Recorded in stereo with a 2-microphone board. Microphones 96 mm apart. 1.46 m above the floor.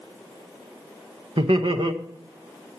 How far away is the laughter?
About 1.1 m.